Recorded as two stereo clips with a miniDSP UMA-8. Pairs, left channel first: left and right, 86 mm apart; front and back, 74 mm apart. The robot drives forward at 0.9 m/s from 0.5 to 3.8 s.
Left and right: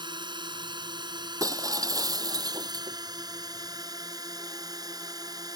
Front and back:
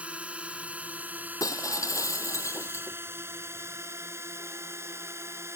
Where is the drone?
110° right; by 5.6 s 130° right.